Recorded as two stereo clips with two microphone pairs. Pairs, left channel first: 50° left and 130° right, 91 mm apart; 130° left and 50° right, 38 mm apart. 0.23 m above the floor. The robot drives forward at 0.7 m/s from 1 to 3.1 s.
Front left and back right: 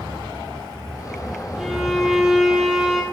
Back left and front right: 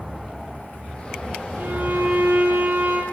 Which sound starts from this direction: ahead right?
A violin, at 1.6 s.